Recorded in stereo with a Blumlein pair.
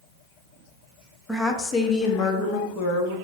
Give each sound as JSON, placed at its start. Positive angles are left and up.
{"t": 1.3, "sound": "a woman speaking", "azimuth_deg": 5, "distance_m": 0.5}